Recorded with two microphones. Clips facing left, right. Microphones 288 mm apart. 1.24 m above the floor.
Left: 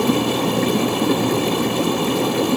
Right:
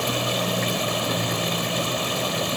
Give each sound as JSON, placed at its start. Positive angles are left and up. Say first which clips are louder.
{"t": 0.0, "sound": "running water", "louder": "left 10 dB", "side_deg": 70}